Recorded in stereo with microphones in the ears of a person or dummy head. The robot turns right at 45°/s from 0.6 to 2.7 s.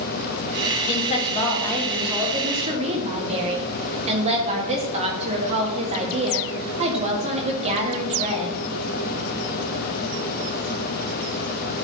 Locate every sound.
0.9 s a woman speaking: 130° left, 1.5 m; by 8.6 s 145° right, 1.5 m